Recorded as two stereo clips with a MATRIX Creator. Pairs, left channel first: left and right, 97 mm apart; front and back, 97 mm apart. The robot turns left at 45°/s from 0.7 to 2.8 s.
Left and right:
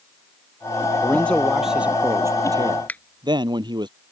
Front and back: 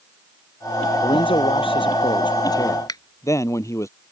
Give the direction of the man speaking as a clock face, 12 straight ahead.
11 o'clock.